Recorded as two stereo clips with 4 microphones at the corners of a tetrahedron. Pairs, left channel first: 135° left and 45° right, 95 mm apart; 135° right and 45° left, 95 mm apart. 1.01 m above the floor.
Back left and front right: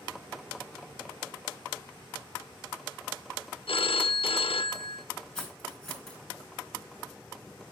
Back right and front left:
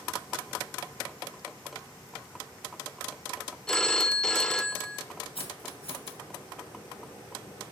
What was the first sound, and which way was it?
A phone ringing, 140° left.